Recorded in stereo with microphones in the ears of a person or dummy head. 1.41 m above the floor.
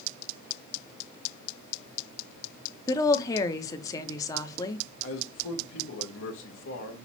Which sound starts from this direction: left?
A man speaking, at 5.0 s.